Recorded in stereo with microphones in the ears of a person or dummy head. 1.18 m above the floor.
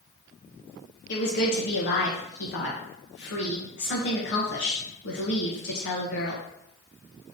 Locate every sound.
1.1 s a woman speaking: 60° left (ahead or behind), 1.0 m